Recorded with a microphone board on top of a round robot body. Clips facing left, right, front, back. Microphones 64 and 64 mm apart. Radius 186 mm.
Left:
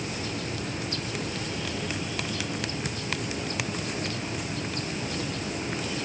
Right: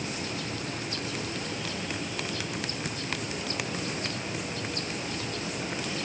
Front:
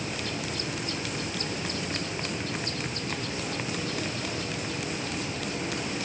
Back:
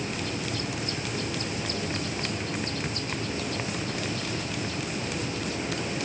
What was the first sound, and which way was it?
Only background noise.